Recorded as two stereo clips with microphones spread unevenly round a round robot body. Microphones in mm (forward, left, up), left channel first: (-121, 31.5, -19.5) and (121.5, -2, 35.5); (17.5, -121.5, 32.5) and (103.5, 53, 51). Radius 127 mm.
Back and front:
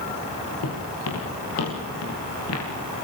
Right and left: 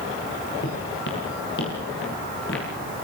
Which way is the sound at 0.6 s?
160° right.